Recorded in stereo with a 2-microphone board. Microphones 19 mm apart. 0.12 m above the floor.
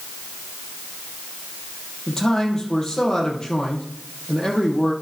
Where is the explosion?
I don't hear an explosion.